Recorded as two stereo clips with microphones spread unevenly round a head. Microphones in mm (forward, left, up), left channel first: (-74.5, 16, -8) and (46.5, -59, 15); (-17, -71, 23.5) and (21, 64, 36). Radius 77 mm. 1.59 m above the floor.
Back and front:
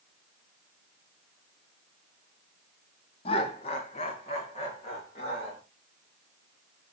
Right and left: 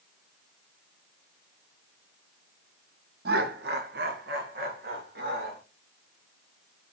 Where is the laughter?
90° left, 0.7 m; by 5.6 s 95° left, 2.5 m.